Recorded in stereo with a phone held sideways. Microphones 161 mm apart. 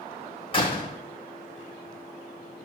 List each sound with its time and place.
0.5 s a door slam: 35° left (ahead or behind), 3 m